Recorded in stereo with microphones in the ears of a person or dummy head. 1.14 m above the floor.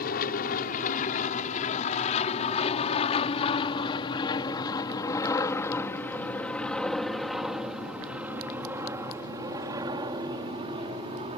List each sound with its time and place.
0.0 s an aircraft: 55° left (ahead or behind); by 11.4 s 30° right (ahead or behind)